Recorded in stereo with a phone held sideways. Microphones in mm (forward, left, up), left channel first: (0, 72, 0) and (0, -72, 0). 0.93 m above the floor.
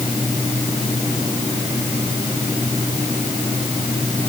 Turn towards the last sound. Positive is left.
No sound to turn to.